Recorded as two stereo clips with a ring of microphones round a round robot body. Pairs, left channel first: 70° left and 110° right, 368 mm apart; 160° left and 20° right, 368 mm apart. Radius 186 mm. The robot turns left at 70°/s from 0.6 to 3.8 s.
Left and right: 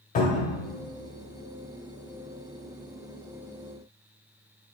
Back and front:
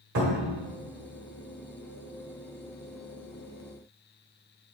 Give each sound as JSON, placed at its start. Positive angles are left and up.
{"t": 0.1, "sound": "a cupboard door", "azimuth_deg": 0, "distance_m": 1.3}